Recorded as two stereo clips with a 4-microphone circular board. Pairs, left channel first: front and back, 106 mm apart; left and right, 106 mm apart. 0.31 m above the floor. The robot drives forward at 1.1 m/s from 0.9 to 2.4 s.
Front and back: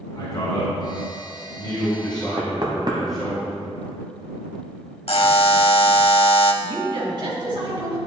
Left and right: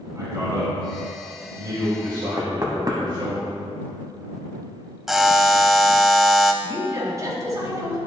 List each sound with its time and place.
0.1 s a man speaking: 40° right, 2.5 m; by 3.4 s 85° right, 2.0 m
2.4 s knocking: 140° right, 1.1 m
5.1 s a buzzer: 5° right, 0.6 m
6.6 s a woman speaking: 145° right, 2.5 m